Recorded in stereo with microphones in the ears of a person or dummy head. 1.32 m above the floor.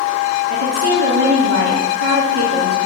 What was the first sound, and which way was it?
A woman speaking, 70° right (ahead or behind).